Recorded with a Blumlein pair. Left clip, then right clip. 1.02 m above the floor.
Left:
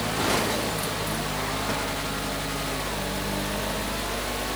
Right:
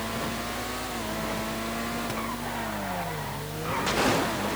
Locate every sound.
0.0 s a fan: 50° left, 0.8 m